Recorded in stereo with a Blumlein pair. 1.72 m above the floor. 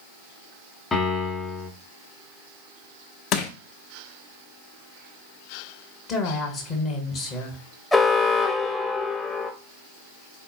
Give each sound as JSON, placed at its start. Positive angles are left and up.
{"t": 0.9, "sound": "a piano", "azimuth_deg": 15, "distance_m": 1.2}
{"t": 3.3, "sound": "crushing", "azimuth_deg": 35, "distance_m": 0.9}
{"t": 6.1, "sound": "a woman speaking", "azimuth_deg": 35, "distance_m": 1.3}
{"t": 7.9, "sound": "an alarm", "azimuth_deg": 10, "distance_m": 0.9}